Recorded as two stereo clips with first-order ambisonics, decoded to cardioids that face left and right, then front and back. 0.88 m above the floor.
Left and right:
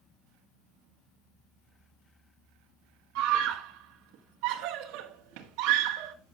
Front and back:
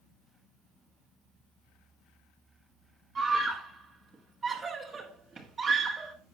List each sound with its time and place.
3.1 s a scream: 110° right, 1.5 m